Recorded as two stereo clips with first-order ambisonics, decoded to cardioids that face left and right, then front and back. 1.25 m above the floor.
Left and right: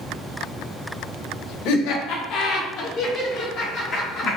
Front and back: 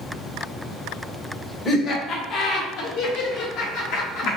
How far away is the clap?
No clap in this recording.